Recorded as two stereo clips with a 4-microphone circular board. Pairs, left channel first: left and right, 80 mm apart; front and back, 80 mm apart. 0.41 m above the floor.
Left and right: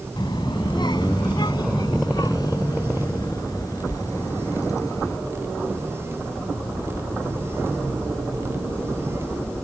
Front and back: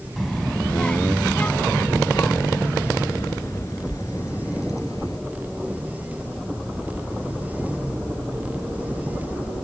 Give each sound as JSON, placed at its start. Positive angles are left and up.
{"t": 0.2, "sound": "a child speaking", "azimuth_deg": 90}